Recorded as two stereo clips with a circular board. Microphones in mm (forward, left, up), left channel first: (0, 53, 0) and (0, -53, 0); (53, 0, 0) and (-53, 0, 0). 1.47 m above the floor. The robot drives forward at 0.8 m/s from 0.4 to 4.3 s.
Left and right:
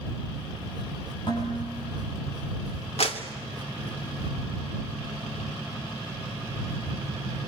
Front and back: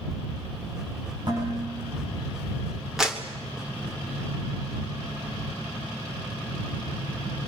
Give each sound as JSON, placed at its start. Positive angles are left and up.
{"t": 1.3, "sound": "dishes clattering", "azimuth_deg": 135, "distance_m": 8.0}
{"t": 3.0, "sound": "a clap", "azimuth_deg": 95, "distance_m": 2.5}